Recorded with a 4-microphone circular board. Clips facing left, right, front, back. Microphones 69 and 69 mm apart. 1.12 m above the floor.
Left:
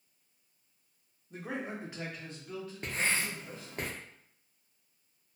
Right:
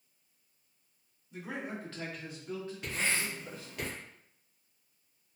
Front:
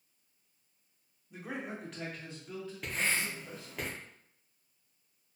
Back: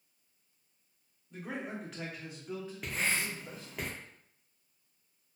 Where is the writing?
95° left, 0.7 m.